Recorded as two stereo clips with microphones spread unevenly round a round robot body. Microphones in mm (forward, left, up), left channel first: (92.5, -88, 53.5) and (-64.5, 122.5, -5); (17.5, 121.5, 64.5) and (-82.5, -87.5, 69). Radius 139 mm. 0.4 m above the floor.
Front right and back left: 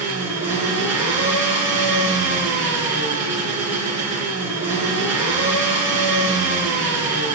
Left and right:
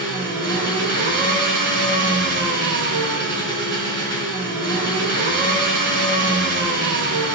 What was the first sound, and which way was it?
An engine running, 150° right.